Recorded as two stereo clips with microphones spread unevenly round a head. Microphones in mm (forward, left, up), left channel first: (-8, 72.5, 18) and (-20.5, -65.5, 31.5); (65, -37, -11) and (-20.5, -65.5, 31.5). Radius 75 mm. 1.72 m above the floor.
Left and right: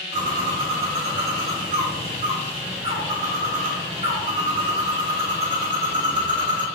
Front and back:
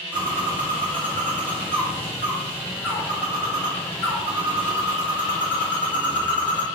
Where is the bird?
75° right, 1.3 m.